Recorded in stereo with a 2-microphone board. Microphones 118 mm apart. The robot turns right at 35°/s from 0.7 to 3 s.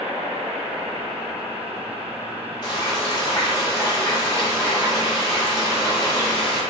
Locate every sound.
2.6 s frying: 35° left (ahead or behind), 1.4 m; by 6.6 s 30° left (ahead or behind), 1.4 m